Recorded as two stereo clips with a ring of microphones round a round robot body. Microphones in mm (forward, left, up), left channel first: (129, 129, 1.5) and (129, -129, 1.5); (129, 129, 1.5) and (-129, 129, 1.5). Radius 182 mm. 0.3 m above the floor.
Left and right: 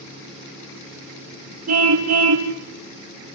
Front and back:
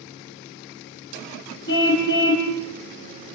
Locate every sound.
1.7 s a car horn: 65° right, 4 m